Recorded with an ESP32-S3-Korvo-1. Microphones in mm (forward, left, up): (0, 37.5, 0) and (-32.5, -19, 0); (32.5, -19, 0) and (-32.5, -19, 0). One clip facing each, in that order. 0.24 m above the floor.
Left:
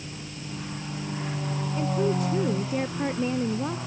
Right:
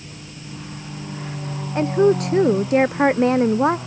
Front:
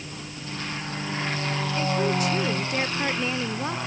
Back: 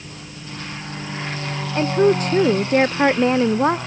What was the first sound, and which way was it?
A woman speaking, 135° right.